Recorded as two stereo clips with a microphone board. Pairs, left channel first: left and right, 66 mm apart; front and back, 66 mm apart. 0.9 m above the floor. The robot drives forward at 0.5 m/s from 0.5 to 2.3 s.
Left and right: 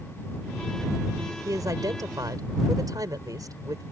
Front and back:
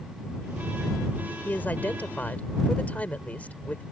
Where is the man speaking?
65° right; by 3.8 s 70° right.